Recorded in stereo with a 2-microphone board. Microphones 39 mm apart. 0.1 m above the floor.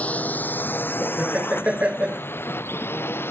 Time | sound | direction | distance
0.0 | a drone | 40° left (ahead or behind) | ?
1.0 | laughter | 35° right (ahead or behind) | ?